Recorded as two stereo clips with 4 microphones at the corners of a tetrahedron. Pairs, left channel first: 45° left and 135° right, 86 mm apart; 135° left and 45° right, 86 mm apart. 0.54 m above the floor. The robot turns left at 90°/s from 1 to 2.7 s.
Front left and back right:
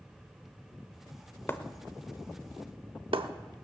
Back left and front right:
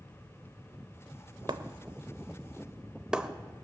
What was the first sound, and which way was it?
Breaking glass, 15° right.